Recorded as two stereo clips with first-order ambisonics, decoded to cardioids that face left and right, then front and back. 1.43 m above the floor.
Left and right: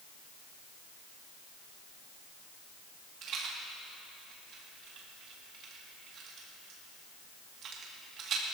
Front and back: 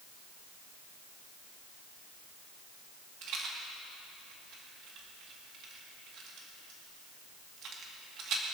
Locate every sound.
3.2 s a rattle: 140° right, 2 m